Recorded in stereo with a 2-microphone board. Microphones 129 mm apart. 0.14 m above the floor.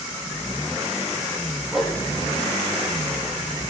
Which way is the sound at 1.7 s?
Centre (ahead or behind).